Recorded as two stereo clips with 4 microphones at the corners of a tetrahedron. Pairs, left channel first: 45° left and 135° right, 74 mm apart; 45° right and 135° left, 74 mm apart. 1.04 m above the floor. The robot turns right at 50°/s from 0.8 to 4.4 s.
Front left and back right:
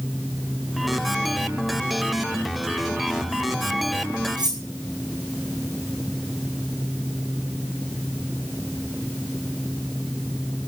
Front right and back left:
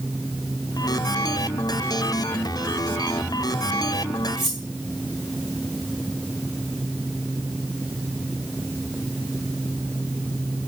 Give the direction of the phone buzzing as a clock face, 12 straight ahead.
I don't hear a phone buzzing.